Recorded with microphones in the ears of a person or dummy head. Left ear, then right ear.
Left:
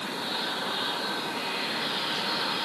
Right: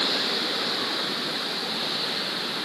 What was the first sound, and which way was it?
Only background noise.